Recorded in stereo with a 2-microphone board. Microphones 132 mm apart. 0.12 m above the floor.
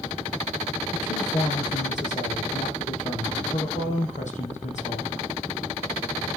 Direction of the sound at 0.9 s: 65° left (ahead or behind).